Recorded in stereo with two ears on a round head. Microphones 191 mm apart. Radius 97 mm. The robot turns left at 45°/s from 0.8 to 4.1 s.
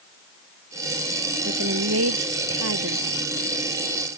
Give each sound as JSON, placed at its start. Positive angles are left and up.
{"t": 1.4, "sound": "a woman speaking", "azimuth_deg": -50}